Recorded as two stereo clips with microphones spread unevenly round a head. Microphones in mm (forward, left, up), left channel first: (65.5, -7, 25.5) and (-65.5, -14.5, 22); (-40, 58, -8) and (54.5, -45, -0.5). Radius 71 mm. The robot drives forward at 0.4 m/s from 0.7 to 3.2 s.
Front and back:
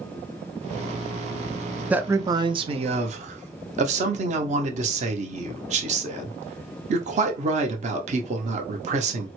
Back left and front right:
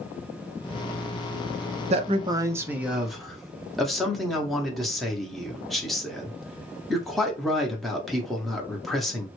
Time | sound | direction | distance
1.9 | a man speaking | 95° right | 0.5 m